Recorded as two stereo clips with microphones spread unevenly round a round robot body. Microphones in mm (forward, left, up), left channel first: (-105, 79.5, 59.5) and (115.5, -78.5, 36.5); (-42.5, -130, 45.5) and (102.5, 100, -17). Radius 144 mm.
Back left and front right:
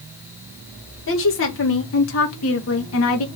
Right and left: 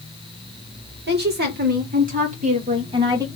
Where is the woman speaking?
105° left, 2.5 m; by 3.3 s 125° left, 1.2 m.